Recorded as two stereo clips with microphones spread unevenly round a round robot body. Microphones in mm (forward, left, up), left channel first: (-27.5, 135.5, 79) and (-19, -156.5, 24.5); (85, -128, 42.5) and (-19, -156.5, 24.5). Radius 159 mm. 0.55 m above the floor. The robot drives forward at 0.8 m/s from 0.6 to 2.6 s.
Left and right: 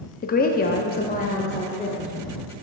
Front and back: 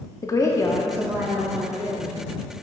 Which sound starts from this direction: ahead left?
A woman speaking, at 0.2 s.